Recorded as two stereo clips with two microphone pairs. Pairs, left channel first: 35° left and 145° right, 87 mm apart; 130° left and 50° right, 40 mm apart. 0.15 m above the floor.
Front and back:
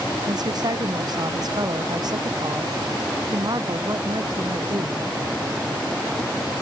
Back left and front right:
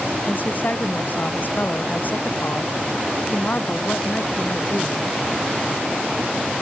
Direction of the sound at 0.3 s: 175° left.